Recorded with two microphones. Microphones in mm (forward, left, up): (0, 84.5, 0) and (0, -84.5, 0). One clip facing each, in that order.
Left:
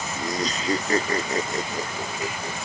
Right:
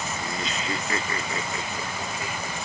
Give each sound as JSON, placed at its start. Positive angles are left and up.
{"t": 0.2, "sound": "laughter", "side_deg": 40}